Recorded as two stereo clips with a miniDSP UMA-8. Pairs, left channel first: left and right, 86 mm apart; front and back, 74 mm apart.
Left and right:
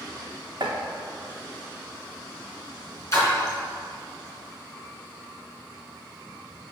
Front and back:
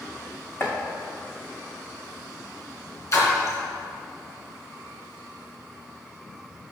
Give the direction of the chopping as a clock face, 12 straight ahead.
2 o'clock.